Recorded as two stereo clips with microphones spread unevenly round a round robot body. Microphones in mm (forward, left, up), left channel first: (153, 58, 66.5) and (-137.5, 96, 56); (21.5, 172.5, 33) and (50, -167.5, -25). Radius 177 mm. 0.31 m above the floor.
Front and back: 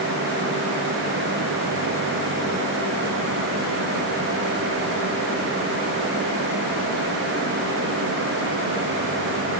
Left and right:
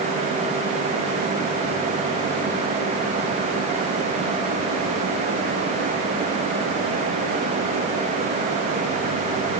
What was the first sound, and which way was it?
Only background noise.